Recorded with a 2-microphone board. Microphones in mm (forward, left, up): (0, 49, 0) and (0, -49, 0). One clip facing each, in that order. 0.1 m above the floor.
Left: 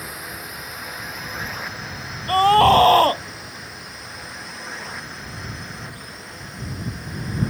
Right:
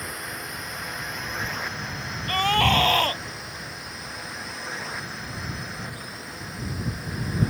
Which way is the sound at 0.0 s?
5° left (ahead or behind).